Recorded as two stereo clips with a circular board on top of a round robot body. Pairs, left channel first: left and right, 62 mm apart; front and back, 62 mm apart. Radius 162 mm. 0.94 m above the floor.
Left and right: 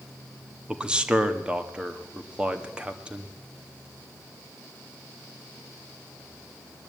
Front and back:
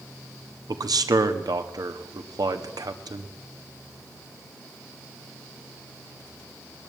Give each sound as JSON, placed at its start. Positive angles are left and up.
{"t": 0.7, "sound": "a man speaking", "azimuth_deg": -165, "distance_m": 1.7}